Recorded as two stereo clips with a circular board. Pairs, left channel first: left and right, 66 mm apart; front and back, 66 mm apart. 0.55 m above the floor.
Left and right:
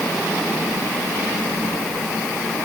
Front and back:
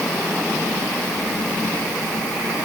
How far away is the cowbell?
No cowbell in this recording.